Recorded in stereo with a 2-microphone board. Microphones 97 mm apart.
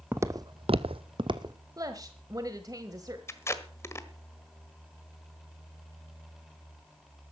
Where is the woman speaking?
35° right (ahead or behind), 1.2 m.